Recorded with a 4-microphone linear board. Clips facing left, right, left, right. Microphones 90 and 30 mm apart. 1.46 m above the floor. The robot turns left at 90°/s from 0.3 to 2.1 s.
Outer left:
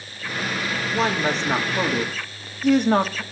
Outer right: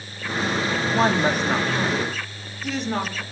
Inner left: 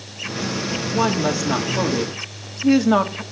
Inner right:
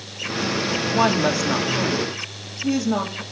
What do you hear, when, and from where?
0.9 s a woman speaking: 130° right, 2.5 m; by 3.2 s 120° left, 2.5 m